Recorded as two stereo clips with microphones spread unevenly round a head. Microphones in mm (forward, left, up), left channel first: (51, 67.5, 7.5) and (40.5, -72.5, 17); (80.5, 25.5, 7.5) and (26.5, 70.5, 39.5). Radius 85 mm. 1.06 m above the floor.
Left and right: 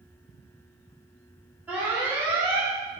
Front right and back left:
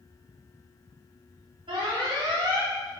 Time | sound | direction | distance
1.7 | an alarm | 175° right | 2 m